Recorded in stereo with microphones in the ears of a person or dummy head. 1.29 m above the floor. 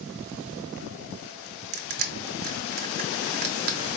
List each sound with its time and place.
1.7 s crushing: 45° right (ahead or behind), 0.8 m